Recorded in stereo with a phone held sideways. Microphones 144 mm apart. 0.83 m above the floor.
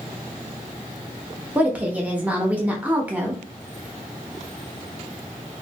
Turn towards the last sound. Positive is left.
turn(degrees=-10)  # may be behind; listen again after turning